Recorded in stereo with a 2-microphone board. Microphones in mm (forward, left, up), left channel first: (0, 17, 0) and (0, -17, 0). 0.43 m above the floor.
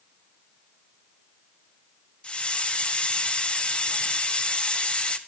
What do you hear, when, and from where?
2.2 s a hiss: 30° left (ahead or behind), 1.1 m